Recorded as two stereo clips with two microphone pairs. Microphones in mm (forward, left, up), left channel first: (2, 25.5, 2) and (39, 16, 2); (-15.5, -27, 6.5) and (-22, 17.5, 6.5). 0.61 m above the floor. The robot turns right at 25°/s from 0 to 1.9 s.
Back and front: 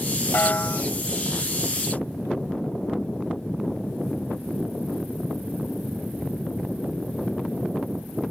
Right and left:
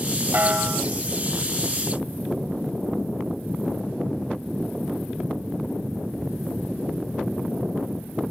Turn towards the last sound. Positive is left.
turn(degrees=180)